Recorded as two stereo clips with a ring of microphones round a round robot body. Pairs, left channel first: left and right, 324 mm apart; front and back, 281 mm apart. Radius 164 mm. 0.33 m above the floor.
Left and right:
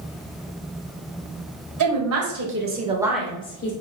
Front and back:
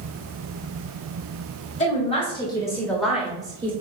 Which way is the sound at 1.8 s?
65° right.